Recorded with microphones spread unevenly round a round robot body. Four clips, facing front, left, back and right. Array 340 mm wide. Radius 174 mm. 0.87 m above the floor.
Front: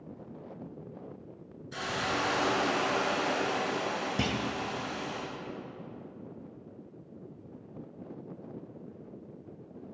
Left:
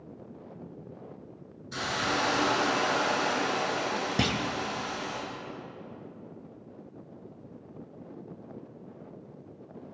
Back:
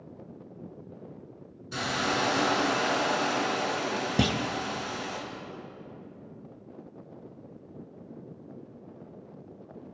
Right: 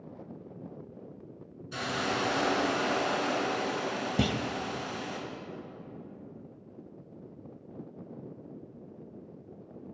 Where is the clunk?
175° right, 0.7 m.